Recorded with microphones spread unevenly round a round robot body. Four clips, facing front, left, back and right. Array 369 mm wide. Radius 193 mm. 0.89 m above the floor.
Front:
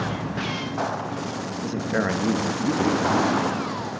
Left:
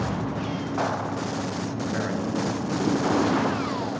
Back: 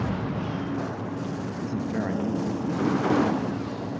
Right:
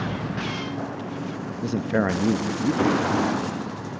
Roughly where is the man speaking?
Right.